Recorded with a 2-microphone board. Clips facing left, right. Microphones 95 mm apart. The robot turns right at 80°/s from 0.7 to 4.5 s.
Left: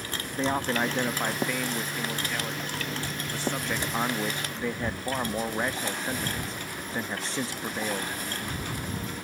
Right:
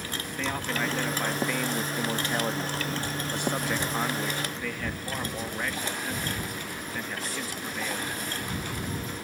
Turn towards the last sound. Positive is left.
turn(degrees=55)